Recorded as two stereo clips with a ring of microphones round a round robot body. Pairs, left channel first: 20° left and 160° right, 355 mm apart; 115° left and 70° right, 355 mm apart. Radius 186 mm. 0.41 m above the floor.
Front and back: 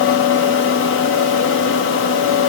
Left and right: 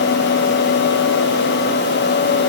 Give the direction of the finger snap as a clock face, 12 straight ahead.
I don't hear a finger snap.